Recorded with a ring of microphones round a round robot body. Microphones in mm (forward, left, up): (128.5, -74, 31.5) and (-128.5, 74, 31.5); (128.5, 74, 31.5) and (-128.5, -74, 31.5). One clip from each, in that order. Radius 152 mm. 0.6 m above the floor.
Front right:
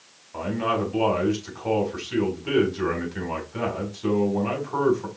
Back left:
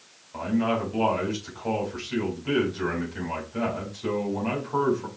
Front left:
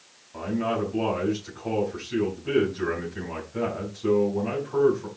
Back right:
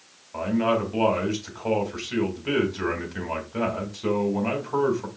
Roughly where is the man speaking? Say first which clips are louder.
Front right 1 dB, back right 4 dB; right.